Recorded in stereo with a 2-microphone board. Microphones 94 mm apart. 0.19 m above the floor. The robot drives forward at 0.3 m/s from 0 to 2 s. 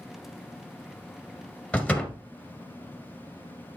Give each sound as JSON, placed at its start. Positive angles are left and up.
{"t": 1.7, "sound": "a door slam", "side_deg": 15, "distance_m": 1.8}